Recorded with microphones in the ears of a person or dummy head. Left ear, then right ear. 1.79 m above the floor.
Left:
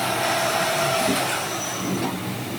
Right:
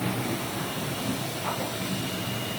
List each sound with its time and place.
Only background noise.